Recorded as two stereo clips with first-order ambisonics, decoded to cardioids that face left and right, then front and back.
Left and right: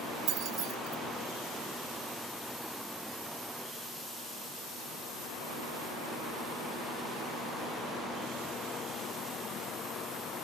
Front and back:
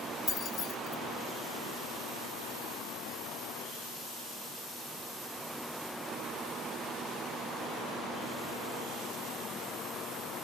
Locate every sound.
0.3 s keys jangling: 55° right, 0.6 m